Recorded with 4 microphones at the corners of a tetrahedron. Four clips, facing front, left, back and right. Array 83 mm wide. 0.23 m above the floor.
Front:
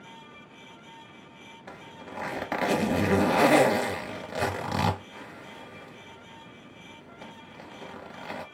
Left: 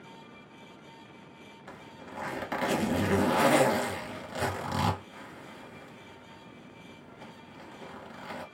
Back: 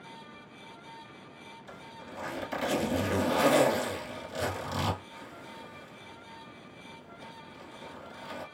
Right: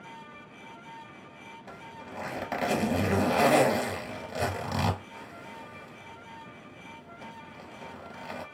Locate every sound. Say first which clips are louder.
1.7 s a zipper: right 1 dB, front 4 dB; 5° right, 1.3 m